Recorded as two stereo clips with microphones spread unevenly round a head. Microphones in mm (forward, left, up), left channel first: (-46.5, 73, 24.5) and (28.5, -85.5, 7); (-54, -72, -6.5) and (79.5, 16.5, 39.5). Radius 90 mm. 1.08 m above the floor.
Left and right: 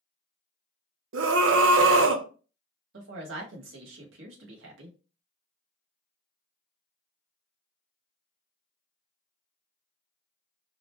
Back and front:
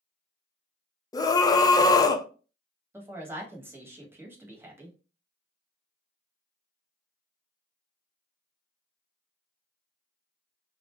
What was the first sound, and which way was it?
A scream, 80° right.